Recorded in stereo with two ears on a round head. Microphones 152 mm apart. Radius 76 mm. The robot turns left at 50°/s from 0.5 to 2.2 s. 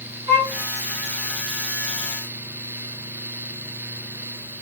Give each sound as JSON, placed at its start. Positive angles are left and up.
{"t": 0.3, "sound": "a violin", "side_deg": -30, "distance_m": 1.9}